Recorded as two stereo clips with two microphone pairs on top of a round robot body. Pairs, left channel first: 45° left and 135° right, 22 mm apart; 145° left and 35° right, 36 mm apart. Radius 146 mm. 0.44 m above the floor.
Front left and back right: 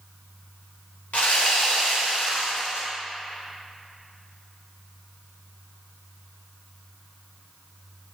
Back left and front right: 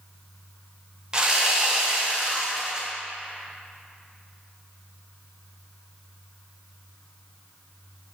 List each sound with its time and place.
1.1 s sawing: 35° left, 1.0 m